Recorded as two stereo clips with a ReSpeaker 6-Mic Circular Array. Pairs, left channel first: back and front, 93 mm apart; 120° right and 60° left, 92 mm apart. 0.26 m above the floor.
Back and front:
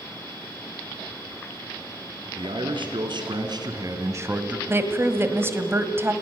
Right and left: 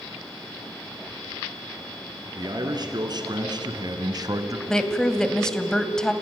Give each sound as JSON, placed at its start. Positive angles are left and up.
{"t": 2.4, "sound": "a man speaking", "azimuth_deg": 20, "distance_m": 3.5}
{"t": 4.7, "sound": "a woman speaking", "azimuth_deg": -40, "distance_m": 1.5}